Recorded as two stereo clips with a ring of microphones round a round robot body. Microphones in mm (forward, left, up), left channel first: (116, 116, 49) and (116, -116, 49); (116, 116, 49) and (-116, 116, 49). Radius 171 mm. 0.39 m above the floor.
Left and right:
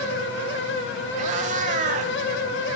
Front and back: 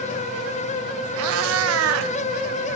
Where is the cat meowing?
155° right, 0.8 m.